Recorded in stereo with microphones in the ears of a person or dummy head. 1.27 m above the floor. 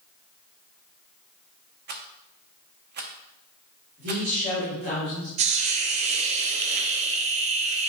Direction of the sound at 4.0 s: 70° right (ahead or behind).